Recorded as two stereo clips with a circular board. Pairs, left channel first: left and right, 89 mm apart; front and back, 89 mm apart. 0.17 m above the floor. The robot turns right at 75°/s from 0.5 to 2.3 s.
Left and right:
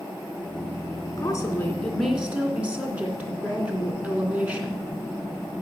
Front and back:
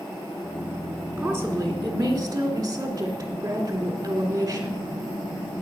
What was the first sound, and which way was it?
A woman speaking, 115° left.